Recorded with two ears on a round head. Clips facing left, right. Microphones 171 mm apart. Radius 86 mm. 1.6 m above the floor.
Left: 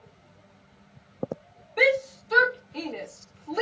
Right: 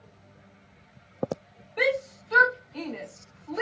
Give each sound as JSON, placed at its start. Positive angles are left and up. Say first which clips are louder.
{"t": 1.8, "sound": "a shout", "louder": "left 3 dB", "side_deg": 20, "distance_m": 1.5}